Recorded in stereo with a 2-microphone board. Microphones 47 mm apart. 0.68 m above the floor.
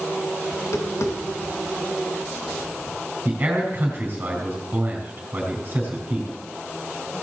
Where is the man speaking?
40° right (ahead or behind), 4 m.